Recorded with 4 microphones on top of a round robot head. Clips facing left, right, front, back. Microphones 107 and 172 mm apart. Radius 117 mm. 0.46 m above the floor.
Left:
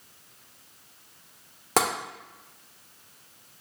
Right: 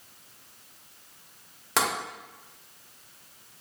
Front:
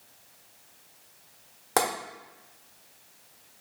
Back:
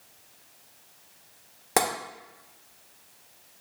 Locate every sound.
1.8 s tapping: 110° left, 1.2 m